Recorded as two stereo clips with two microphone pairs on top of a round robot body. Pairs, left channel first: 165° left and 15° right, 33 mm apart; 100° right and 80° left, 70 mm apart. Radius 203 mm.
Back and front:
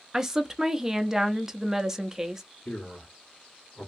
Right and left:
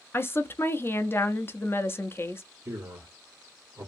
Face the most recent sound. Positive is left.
turn(degrees=130)